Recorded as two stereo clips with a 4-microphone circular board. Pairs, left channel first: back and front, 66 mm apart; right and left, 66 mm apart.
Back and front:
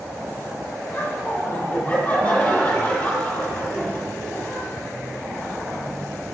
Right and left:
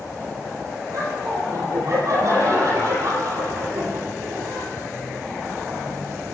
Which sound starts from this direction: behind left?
Laughter, at 0.9 s.